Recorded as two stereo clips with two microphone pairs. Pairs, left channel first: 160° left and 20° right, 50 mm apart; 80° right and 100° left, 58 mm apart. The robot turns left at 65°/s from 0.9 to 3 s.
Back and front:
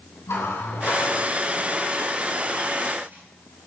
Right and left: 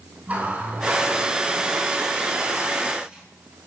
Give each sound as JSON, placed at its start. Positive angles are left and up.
{"t": 0.3, "sound": "a running tap", "azimuth_deg": 160, "distance_m": 4.0}